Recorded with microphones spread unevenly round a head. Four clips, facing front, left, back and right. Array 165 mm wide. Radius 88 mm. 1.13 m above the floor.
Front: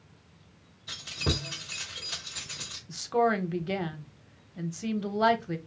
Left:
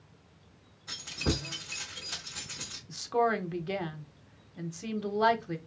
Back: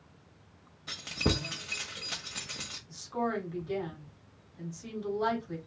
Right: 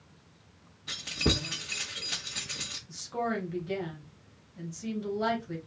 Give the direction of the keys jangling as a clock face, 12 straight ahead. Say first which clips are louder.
Right 2 dB, back 2 dB; 5 o'clock.